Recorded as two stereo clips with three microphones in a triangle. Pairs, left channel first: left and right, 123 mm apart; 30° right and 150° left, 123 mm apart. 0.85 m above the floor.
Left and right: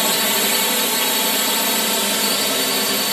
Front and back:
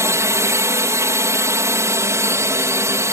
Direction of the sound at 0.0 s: Straight behind.